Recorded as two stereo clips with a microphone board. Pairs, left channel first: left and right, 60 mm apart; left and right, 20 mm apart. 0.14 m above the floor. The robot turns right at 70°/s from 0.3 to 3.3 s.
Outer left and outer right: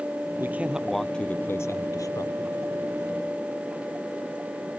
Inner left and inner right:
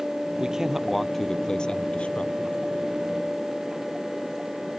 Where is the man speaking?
35° right; by 2.6 s 115° left.